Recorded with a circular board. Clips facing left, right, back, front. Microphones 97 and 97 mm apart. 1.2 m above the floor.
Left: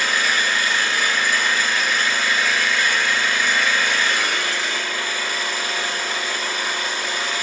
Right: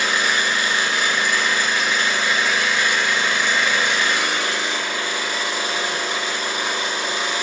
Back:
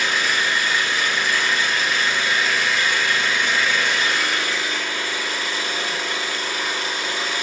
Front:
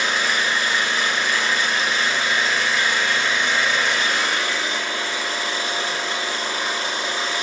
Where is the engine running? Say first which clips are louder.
Right 1 dB, even; 35° right, 1.2 m.